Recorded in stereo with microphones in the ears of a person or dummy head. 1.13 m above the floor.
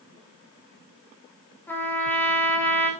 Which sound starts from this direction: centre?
A trumpet, at 1.7 s.